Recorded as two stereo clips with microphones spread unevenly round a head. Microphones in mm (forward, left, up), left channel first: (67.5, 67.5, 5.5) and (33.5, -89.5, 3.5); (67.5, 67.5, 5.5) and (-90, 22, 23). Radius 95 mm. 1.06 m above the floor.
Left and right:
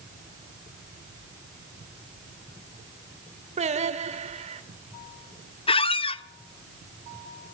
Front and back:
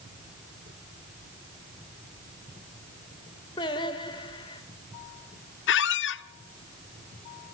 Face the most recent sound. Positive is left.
turn(degrees=20)